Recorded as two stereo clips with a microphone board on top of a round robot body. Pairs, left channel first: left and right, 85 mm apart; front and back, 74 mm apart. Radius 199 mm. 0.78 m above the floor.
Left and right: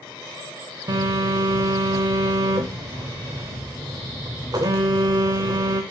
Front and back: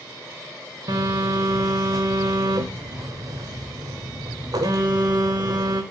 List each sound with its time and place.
0.9 s a phone buzzing: 140° right, 0.8 m